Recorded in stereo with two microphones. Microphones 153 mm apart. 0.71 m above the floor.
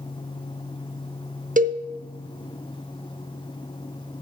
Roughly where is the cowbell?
Right.